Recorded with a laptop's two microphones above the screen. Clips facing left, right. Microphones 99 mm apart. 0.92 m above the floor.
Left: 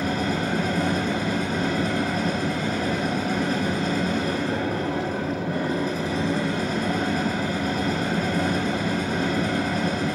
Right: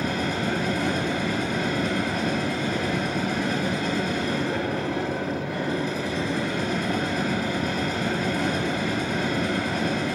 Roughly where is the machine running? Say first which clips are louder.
Left 1 dB; left.